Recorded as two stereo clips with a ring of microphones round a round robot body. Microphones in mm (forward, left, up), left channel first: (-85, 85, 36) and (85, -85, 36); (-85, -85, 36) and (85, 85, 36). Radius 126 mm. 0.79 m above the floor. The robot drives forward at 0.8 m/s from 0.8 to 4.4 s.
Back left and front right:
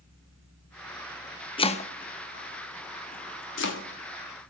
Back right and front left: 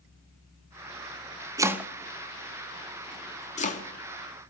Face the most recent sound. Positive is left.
turn(degrees=170)